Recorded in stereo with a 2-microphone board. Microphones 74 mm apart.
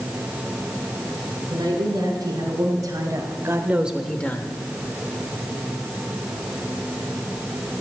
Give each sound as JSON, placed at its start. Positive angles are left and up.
{"t": 1.5, "sound": "a woman speaking", "side_deg": -65, "distance_m": 3.5}